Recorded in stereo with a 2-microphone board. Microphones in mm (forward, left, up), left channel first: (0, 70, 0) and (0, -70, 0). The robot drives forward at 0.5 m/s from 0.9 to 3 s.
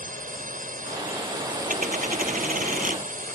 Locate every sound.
0.0 s a drone: 75° right (ahead or behind); by 3.4 s 70° right (ahead or behind)
1.7 s a dropped coin: 75° right (ahead or behind)